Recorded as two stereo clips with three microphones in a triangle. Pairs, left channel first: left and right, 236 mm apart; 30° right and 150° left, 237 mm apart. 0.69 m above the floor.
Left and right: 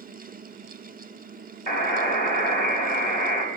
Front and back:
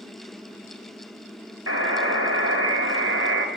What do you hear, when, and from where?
1.7 s a buzzer: 140° left, 4.5 m